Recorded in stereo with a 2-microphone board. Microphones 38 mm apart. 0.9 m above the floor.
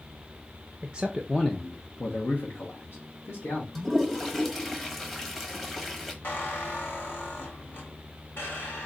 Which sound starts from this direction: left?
A squeak, at 6.2 s.